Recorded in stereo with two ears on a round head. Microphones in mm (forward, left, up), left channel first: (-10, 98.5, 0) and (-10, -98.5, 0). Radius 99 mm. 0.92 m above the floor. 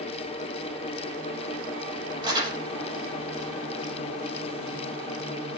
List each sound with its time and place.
2.2 s crumpling: 20° right (ahead or behind), 6.5 m